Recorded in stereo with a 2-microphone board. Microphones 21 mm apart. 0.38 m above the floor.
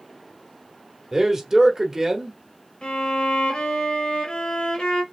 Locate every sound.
1.1 s a man speaking: 20° right (ahead or behind), 1.0 m
2.8 s a violin: 55° left (ahead or behind), 1.0 m